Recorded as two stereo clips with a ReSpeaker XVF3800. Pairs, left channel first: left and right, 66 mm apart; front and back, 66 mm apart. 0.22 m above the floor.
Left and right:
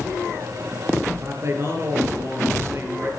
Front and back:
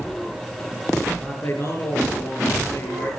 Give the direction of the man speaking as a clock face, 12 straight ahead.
1 o'clock.